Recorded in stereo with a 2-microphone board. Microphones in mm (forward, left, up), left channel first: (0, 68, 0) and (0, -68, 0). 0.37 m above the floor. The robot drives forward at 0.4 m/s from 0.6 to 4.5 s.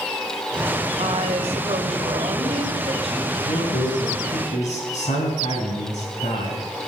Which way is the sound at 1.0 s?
50° right (ahead or behind).